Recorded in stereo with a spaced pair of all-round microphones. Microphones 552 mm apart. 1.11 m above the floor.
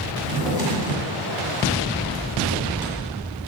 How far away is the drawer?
About 2.5 m.